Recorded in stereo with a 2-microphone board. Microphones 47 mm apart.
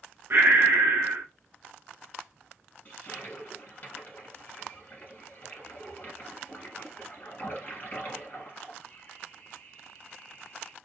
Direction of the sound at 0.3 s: 55° right (ahead or behind).